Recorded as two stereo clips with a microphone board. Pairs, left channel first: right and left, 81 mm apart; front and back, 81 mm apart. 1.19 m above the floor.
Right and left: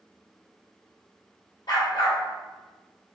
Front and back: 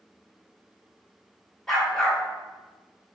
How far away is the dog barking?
About 1.5 m.